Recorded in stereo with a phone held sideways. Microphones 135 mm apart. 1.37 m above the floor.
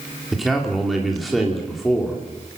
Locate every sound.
0.3 s a man speaking: centre (ahead or behind), 3 m